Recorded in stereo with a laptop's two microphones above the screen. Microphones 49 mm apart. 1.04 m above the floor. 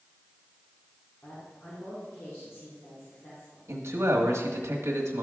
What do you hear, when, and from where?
1.2 s a woman speaking: 60° left (ahead or behind), 3 m
3.7 s a man speaking: 85° right, 1.5 m